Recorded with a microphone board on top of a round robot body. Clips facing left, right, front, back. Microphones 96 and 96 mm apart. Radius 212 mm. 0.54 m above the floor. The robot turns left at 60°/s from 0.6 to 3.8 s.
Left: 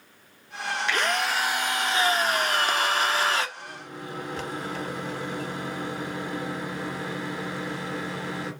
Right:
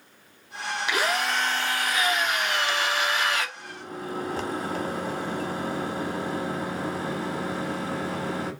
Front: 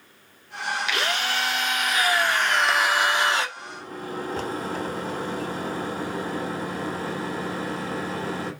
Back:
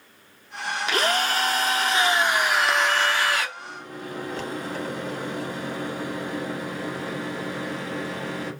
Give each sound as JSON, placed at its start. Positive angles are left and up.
{"t": 0.9, "sound": "a drill", "azimuth_deg": -160, "distance_m": 0.7}
{"t": 3.6, "sound": "a microwave", "azimuth_deg": -30, "distance_m": 1.1}